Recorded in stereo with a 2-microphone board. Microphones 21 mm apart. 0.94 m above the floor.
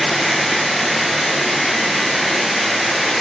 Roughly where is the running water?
Centre.